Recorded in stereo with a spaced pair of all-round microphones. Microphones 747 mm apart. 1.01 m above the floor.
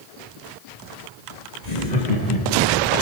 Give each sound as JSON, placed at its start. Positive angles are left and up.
{"t": 1.6, "sound": "laughter", "side_deg": 55, "distance_m": 1.8}